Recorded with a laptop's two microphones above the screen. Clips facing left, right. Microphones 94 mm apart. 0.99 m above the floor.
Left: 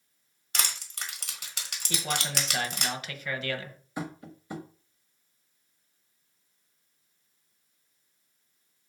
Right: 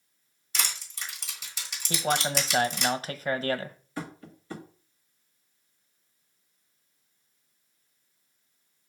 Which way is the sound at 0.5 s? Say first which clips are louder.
Left 1 dB; 65° left (ahead or behind).